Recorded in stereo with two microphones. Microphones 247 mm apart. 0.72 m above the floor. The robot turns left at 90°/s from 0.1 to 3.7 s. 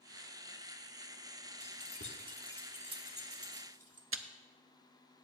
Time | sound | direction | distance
1.6 | keys jangling | 75° left (ahead or behind) | 1.1 m
4.1 | chewing | 55° right (ahead or behind) | 0.5 m